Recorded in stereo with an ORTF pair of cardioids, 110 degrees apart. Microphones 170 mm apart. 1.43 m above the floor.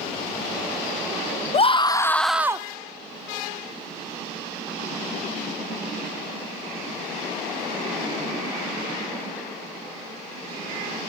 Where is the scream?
40° left, 0.9 m; by 2.7 s 25° right, 0.7 m.